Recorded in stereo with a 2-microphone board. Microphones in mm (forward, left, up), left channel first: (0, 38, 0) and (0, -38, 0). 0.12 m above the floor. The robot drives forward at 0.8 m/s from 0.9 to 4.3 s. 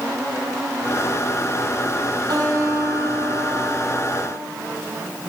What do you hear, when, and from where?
2.3 s a guitar: 65° right (ahead or behind), 3.5 m; by 4.4 s 55° right (ahead or behind), 4 m